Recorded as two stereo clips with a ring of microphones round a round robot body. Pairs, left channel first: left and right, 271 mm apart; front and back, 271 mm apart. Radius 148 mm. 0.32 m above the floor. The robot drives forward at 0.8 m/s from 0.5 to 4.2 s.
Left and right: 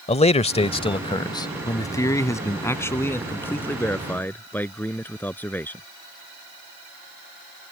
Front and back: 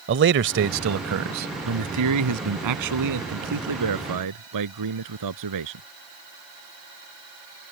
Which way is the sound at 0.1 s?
150° left.